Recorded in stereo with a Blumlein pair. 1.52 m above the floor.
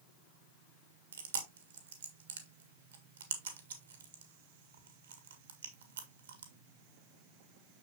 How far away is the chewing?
About 1.6 m.